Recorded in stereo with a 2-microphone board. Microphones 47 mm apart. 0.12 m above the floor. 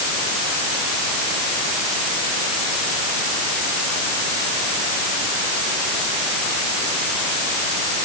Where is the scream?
I don't hear a scream.